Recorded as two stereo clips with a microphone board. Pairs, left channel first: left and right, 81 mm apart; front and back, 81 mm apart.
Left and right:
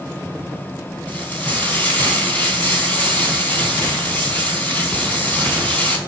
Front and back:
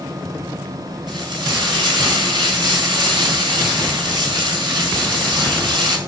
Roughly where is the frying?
Behind.